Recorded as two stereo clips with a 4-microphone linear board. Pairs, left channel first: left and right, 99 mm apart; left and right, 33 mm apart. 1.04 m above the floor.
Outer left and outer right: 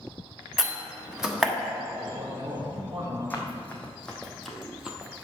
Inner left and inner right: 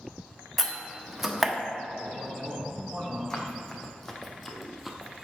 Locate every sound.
0.6 s a door slam: 5° right (ahead or behind), 1.2 m
2.0 s a man speaking: 75° right (ahead or behind), 3.5 m
3.3 s running footsteps: 20° left (ahead or behind), 1.9 m; by 5.3 s 20° right (ahead or behind), 1.1 m